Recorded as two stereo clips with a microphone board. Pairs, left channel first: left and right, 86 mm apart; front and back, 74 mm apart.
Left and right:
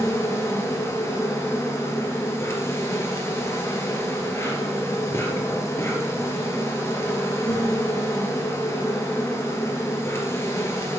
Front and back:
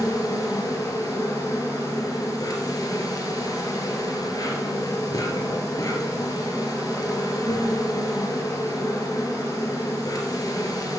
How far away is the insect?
About 2 m.